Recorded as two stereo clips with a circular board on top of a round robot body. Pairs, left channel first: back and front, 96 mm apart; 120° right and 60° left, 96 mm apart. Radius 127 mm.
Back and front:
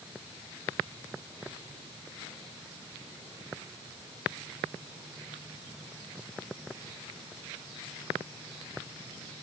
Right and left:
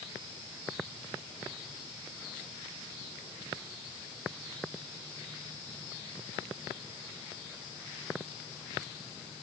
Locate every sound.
Only background noise.